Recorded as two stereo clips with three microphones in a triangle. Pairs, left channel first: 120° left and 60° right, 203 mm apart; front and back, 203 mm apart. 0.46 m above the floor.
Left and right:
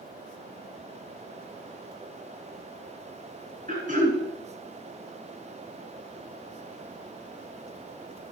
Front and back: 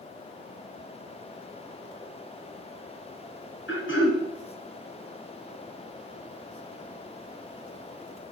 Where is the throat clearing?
10° right, 3 m.